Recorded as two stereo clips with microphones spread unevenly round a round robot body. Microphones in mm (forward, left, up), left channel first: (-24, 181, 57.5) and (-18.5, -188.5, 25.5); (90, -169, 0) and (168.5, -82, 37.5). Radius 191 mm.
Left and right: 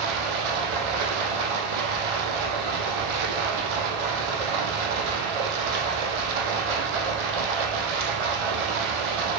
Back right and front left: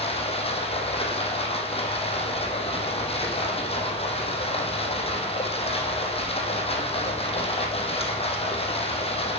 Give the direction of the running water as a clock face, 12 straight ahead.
3 o'clock.